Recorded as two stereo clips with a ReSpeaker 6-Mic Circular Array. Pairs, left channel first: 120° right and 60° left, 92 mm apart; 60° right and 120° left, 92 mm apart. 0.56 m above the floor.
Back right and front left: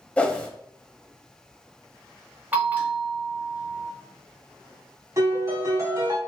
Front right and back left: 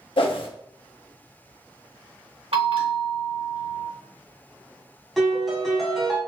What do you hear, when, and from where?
0.2 s a whoosh: 45° right, 0.6 m
2.5 s a bell: 130° left, 1.0 m
5.2 s a piano: 30° left, 1.1 m